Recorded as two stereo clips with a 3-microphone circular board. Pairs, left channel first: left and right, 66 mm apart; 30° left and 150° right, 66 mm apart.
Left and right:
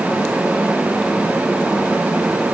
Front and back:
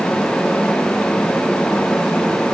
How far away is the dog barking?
I don't hear a dog barking.